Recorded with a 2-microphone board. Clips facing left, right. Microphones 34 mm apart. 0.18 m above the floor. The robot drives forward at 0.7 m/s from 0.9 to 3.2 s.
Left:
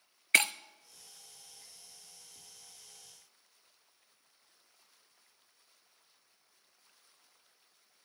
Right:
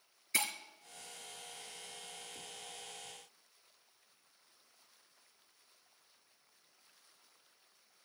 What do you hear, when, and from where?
0.3 s breaking glass: 65° left (ahead or behind), 0.6 m